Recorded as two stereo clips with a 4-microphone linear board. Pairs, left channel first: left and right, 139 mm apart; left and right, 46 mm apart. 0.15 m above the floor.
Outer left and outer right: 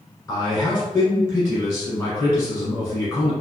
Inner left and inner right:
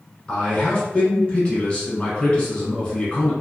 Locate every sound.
0.3 s a man speaking: 20° left (ahead or behind), 1.4 m